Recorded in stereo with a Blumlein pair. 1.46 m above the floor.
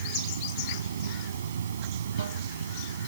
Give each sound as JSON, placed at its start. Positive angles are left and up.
{"t": 0.0, "sound": "running water", "azimuth_deg": -65}